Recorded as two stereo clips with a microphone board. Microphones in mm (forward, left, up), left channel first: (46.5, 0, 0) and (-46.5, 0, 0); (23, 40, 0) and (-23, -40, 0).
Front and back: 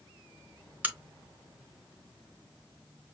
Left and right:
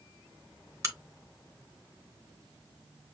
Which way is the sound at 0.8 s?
125° right.